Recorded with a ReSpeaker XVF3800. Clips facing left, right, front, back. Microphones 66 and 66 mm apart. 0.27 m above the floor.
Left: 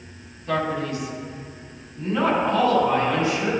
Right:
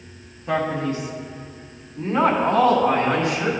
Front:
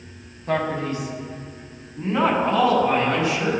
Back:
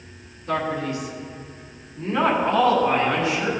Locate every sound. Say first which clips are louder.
0.5 s a man speaking: right 2 dB, front 1 dB; 30° right, 2.0 m; by 3.5 s 90° right, 3 m